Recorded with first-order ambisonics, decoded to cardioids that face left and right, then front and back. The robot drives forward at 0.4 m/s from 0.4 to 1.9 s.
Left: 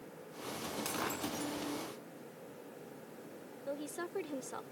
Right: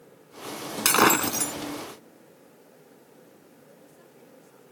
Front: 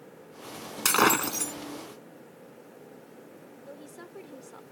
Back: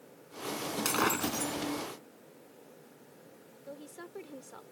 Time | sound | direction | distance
0.8 | breaking glass | 60° right | ?
3.7 | a woman speaking | 90° left | ?